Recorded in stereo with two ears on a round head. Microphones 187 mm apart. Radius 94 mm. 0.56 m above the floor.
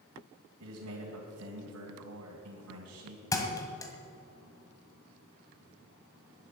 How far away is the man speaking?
About 2.5 m.